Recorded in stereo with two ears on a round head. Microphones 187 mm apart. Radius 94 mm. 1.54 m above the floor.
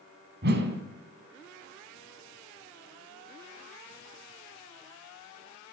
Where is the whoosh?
55° right (ahead or behind), 3.5 m.